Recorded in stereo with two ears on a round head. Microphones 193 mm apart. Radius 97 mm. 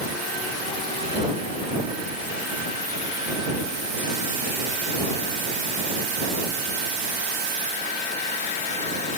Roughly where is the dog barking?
I don't hear a dog barking.